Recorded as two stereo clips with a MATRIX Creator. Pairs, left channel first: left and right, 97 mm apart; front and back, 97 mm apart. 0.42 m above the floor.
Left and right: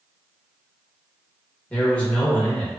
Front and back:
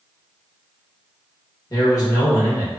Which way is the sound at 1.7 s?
20° left.